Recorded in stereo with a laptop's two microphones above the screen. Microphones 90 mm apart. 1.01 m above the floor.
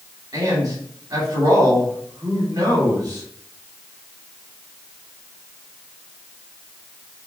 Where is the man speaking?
45° right (ahead or behind), 2.5 m.